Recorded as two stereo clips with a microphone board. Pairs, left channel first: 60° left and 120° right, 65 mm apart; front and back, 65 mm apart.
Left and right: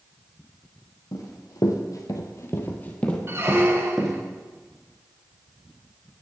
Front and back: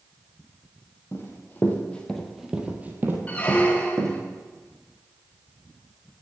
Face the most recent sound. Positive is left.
turn(degrees=-70)